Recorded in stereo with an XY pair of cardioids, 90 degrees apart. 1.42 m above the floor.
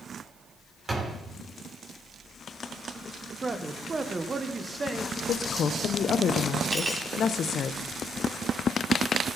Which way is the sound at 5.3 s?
65° left.